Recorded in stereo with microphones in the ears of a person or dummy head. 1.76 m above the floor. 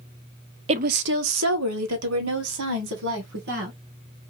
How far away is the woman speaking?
About 0.5 m.